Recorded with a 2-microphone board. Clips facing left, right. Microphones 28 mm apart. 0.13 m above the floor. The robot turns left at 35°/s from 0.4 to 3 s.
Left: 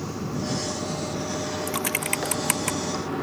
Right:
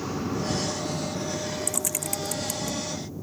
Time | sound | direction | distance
0.0 | running water | 170° right | ?
1.7 | typing on a keyboard | 35° left (ahead or behind) | ?